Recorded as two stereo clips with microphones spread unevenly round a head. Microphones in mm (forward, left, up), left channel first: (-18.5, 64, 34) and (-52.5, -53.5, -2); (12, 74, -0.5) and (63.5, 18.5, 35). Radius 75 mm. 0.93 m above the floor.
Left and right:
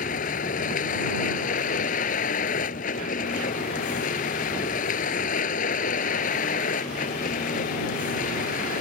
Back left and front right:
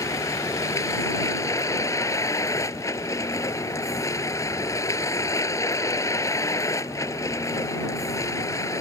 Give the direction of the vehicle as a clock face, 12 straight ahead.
9 o'clock.